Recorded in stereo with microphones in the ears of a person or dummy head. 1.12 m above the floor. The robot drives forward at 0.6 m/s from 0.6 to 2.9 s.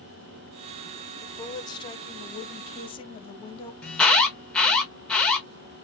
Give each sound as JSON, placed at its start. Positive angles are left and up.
{"t": 1.2, "sound": "a woman speaking", "side_deg": 15, "distance_m": 1.0}
{"t": 3.8, "sound": "an alarm", "side_deg": 5, "distance_m": 0.7}